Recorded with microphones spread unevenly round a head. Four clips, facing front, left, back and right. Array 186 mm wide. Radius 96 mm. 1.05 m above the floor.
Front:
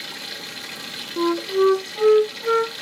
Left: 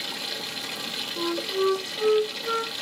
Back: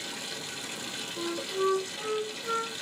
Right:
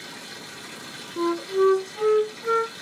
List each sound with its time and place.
0.0 s running water: 80° left, 1.1 m
1.2 s a flute: 10° right, 0.5 m